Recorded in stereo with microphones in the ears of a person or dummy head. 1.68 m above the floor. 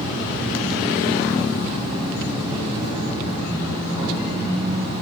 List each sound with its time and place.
0.0 s an insect: 25° right (ahead or behind), 3 m